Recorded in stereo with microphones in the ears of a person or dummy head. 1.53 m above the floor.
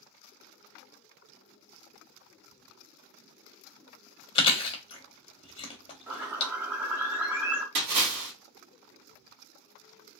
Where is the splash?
55° right (ahead or behind), 2 m.